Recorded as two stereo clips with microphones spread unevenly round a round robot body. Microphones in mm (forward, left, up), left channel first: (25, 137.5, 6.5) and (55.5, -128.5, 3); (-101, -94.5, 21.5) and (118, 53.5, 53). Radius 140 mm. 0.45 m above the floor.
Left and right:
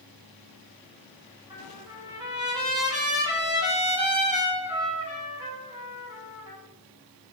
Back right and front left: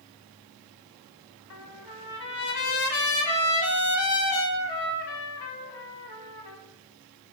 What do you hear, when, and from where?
1.5 s a trumpet: 160° right, 0.5 m